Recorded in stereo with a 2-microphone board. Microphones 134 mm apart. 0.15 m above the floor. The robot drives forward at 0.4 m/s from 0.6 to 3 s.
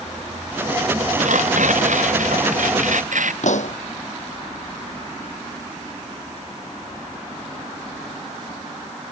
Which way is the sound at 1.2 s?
75° right (ahead or behind).